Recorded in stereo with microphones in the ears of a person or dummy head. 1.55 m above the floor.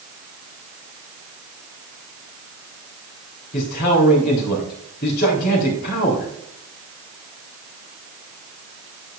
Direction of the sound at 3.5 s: 45° left (ahead or behind).